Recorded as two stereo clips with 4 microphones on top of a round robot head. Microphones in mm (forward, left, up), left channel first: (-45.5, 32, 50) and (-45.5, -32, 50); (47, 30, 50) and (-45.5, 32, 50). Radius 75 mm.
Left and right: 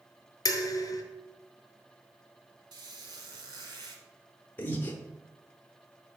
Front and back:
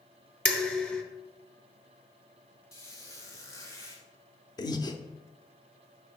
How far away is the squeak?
About 1.2 m.